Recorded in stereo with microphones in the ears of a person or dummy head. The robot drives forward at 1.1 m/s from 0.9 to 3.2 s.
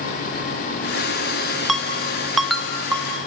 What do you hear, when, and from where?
1.7 s a ringtone: centre (ahead or behind), 1.8 m